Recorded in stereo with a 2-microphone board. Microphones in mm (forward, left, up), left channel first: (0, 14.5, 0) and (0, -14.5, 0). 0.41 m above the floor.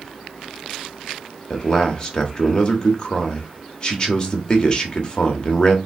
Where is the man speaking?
30° left (ahead or behind), 0.9 m.